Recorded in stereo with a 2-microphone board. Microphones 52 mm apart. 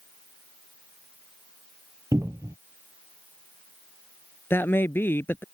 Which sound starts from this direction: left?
A man speaking, at 4.5 s.